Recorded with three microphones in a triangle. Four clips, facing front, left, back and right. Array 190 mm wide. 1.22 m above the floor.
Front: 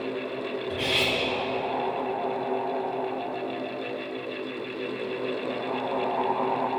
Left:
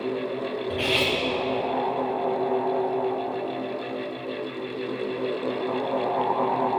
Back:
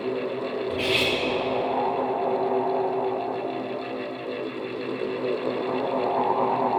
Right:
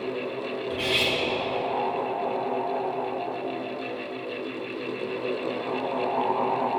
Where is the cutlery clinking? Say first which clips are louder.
Left 2 dB, back 2 dB; 100° left, 1.2 m.